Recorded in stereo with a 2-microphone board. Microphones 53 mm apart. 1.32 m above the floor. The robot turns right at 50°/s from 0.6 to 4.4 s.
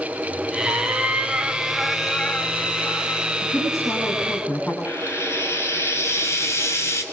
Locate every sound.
0.7 s a cat meowing: 60° right, 2.5 m; by 3.3 s 70° left, 2.5 m
3.4 s a woman speaking: 95° left, 10 m; by 4.8 s 145° left, 10 m
4.8 s frying: 55° left (ahead or behind), 6.5 m